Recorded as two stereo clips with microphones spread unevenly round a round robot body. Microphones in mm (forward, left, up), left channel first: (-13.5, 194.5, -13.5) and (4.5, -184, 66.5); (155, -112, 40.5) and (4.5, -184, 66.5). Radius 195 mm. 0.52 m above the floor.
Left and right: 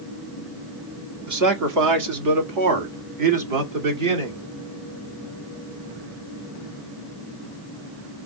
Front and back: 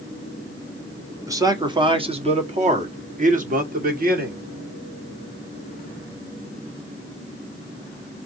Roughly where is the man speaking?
Right.